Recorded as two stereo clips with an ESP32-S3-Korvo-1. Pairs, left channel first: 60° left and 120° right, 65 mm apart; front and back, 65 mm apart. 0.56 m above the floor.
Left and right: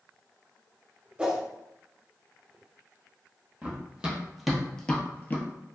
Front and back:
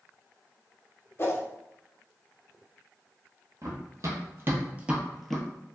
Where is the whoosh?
50° right, 0.5 m.